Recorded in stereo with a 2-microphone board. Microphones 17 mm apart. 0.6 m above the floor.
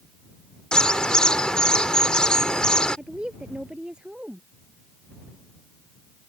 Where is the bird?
55° left (ahead or behind).